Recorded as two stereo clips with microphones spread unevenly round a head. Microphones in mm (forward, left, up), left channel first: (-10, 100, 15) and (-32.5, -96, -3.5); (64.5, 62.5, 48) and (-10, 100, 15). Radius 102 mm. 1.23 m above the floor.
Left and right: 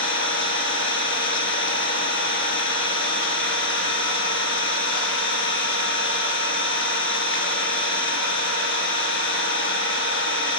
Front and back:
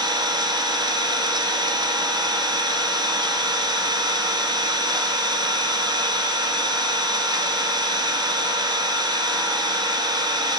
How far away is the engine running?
About 1.6 m.